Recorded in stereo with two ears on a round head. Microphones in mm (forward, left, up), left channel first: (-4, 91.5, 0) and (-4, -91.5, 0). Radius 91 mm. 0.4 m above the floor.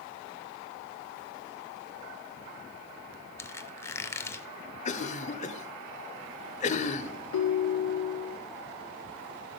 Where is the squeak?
15° left (ahead or behind), 0.6 m.